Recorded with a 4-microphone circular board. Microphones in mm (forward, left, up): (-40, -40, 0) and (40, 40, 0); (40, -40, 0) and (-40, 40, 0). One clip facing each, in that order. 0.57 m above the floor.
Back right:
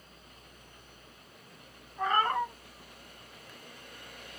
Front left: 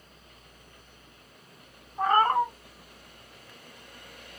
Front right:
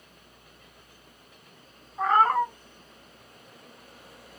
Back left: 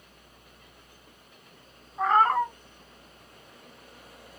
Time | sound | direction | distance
2.0 | a cat meowing | 45° left | 0.6 m